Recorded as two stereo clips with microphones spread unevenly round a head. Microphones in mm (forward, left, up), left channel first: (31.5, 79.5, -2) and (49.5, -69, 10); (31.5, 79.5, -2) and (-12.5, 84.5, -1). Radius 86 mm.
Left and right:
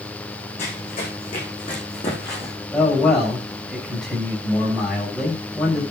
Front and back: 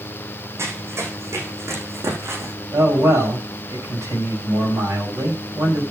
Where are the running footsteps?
155° left, 5 m; by 2.5 s 170° left, 5 m.